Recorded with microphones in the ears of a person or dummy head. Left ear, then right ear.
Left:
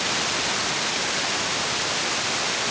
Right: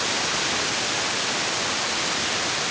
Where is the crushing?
I don't hear crushing.